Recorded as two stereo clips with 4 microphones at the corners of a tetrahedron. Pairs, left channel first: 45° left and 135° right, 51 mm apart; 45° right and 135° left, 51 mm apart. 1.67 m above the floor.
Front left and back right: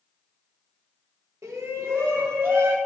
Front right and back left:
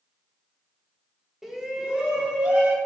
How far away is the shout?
About 2 m.